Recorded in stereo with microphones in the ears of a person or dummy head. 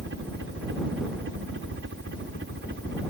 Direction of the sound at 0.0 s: 65° right (ahead or behind).